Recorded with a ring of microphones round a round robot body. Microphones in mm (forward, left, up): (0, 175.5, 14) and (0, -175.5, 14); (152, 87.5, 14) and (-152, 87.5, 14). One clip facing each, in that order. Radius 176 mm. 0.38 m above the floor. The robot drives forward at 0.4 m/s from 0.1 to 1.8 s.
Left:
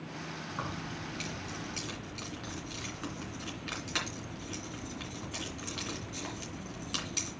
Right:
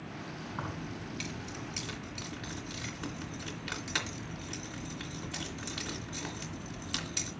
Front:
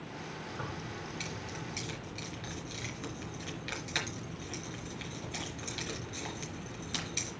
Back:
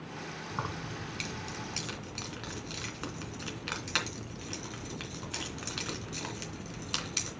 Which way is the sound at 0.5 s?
165° right.